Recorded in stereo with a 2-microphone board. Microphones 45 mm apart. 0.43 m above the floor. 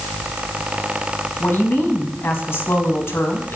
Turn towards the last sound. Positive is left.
turn(degrees=70)  # may be behind; listen again after turning